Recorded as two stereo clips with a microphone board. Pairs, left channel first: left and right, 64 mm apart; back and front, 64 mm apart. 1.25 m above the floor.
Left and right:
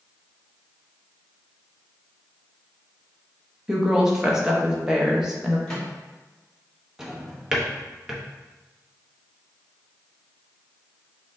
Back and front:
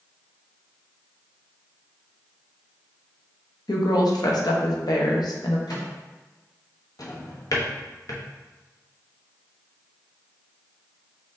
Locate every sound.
3.7 s a woman speaking: 170° right, 1.0 m
5.7 s a microwave: 175° left, 1.7 m
7.0 s a drawer: 170° right, 0.8 m